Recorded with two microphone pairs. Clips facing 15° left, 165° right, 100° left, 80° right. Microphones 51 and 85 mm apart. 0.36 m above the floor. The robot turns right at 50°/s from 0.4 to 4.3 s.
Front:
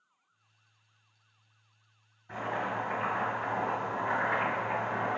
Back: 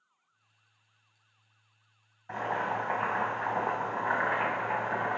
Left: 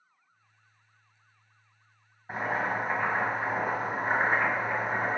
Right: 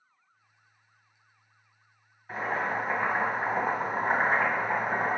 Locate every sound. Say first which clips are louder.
2.3 s boiling: back 2 dB, even; 160° left, 1.7 m; by 5.2 s 100° right, 1.7 m